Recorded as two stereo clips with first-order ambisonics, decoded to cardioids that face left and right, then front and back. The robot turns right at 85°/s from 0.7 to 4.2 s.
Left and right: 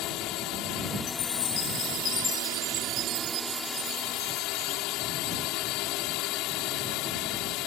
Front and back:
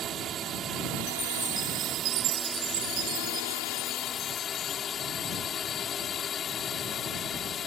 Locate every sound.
0.0 s a drone: 125° left; by 7.7 s 60° left
1.1 s a chime: 55° left; by 4.9 s 40° right